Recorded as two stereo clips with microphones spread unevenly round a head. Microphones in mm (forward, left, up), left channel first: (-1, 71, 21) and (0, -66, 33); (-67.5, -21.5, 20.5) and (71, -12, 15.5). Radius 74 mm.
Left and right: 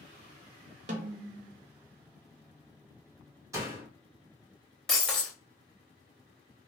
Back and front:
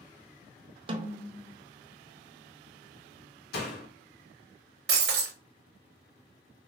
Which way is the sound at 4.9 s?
Straight ahead.